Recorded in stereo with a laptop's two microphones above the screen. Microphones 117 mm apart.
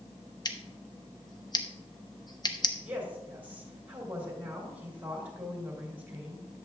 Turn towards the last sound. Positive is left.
turn(degrees=-15)  # may be behind; listen again after turning